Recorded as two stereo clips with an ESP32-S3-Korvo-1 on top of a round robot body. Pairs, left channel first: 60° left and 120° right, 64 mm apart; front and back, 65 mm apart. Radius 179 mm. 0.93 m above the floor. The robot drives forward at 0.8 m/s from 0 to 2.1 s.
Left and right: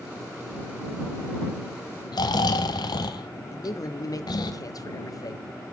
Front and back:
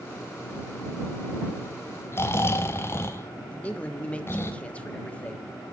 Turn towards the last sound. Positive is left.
turn(degrees=70)